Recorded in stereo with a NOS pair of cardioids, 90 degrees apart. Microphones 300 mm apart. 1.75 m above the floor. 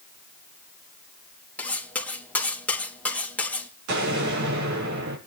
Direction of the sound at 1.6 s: 5° left.